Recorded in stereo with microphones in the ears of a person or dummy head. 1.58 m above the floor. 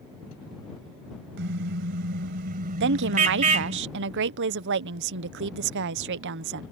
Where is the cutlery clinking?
No cutlery clinking in this recording.